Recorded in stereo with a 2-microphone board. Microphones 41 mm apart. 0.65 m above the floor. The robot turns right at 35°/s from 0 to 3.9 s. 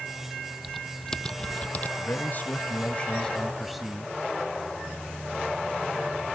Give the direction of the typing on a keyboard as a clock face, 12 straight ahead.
12 o'clock.